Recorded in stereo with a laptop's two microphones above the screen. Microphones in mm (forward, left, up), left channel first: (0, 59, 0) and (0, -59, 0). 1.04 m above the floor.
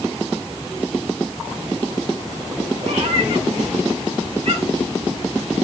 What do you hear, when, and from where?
2.8 s a cat meowing: 60° right (ahead or behind), 5 m